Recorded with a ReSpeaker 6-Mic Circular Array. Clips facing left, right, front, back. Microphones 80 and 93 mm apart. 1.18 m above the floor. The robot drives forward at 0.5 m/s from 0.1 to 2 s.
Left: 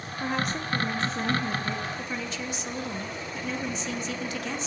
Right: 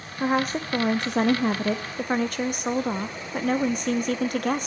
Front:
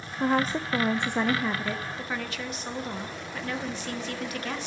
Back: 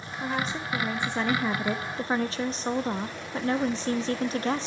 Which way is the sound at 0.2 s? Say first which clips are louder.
Right 6 dB, front 6 dB; 40° right.